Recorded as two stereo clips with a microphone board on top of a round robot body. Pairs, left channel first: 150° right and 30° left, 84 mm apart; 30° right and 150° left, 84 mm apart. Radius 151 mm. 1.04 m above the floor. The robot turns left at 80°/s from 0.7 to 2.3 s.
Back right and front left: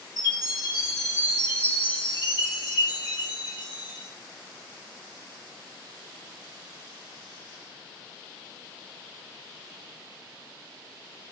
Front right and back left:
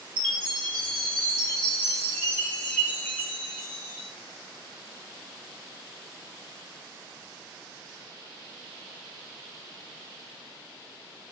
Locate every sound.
0.2 s a chime: 165° left, 1.9 m; by 4.1 s 35° left, 1.9 m